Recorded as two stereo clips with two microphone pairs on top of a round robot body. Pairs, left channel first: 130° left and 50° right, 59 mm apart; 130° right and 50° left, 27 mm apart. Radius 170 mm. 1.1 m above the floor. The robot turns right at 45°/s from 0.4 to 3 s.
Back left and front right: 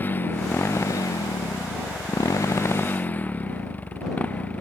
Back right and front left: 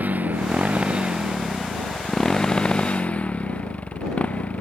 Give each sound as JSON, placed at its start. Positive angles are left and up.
{"t": 0.0, "sound": "a motorcycle", "azimuth_deg": 70}